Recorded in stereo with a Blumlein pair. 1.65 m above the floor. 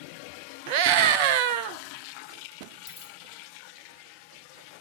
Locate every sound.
0.7 s a scream: 45° right, 0.7 m
2.9 s a dropped coin: 20° left, 4.5 m